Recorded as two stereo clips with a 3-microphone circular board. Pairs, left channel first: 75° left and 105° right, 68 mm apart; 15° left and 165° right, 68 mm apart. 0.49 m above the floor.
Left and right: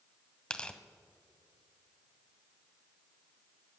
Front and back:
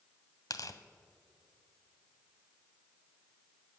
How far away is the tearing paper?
About 0.8 m.